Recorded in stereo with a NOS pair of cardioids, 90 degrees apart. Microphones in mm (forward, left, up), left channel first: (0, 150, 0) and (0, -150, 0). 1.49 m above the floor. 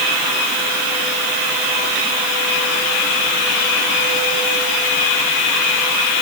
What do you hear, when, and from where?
Only background noise.